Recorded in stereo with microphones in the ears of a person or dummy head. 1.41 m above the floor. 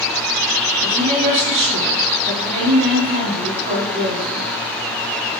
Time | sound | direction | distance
0.8 | a woman speaking | 45° right (ahead or behind) | 8.5 m